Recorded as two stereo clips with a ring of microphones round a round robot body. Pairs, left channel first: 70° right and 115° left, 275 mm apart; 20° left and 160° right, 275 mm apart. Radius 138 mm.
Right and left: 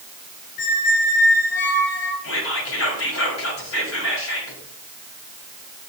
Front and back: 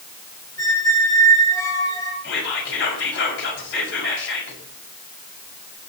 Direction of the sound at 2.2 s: 25° right.